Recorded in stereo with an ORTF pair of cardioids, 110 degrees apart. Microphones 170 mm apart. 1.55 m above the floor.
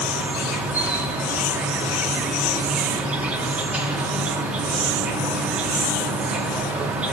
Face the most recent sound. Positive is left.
turn(degrees=-5)